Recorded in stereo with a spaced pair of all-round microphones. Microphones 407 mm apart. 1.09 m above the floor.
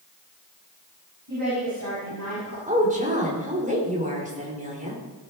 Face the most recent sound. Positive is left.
turn(degrees=-20)  # may be behind; listen again after turning